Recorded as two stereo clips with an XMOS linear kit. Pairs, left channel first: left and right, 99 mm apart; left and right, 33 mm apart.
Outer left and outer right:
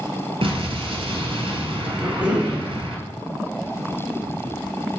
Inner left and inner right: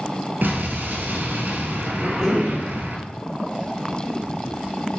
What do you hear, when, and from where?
0.4 s an explosion: 65° right (ahead or behind), 0.9 m
2.0 s a cough: 15° right (ahead or behind), 1.2 m